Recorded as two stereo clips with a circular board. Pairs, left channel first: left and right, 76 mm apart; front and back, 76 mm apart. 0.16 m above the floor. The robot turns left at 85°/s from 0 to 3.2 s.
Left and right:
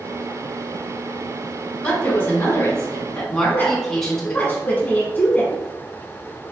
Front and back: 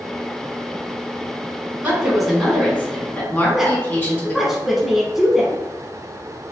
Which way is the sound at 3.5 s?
100° left.